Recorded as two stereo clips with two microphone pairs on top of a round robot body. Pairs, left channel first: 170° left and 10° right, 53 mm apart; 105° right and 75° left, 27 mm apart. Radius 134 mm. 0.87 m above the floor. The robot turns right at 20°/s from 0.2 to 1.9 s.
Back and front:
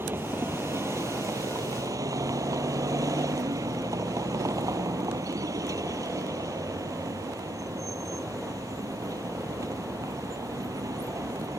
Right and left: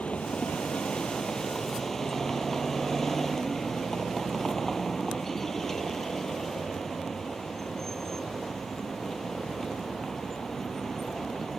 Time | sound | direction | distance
0.0 | a vehicle | 60° right | ?